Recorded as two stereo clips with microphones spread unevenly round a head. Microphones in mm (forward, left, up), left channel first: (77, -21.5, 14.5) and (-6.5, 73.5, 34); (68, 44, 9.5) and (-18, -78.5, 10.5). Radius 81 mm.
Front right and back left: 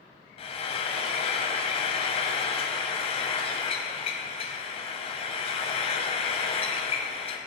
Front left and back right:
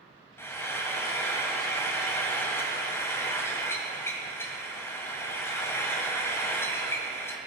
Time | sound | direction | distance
0.4 | frying | 15° right | 2 m